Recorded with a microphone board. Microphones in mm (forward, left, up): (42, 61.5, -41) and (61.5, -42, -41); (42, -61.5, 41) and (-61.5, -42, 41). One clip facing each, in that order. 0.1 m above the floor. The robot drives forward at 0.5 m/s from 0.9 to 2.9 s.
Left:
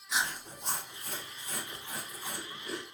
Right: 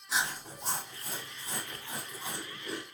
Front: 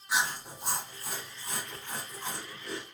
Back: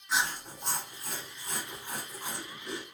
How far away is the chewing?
About 1.6 m.